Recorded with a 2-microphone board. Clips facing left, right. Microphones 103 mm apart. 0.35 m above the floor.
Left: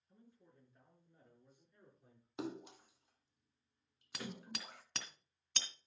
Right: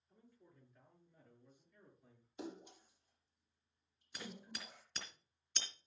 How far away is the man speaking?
About 5.5 m.